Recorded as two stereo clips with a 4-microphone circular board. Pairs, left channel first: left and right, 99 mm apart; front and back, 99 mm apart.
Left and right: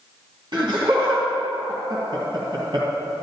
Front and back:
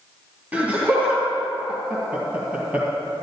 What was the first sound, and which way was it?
Laughter, 110° right.